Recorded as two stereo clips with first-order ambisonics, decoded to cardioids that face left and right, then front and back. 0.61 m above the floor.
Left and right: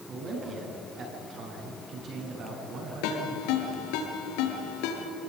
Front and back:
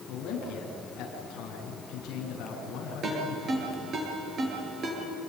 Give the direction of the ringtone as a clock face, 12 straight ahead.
8 o'clock.